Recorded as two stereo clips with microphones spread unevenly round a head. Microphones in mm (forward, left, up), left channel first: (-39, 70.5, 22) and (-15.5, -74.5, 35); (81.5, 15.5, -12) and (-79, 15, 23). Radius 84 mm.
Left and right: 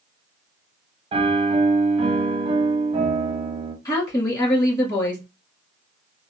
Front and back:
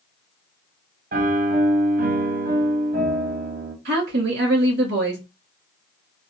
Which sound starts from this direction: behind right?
A piano, at 1.1 s.